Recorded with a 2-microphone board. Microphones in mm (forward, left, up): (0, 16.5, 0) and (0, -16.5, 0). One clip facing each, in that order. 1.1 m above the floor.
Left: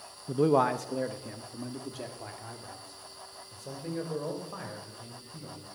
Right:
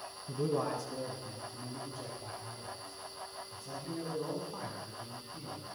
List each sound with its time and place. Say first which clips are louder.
0.3 s a man speaking: left 9 dB; 50° left (ahead or behind), 0.6 m; by 5.7 s 80° left, 5.5 m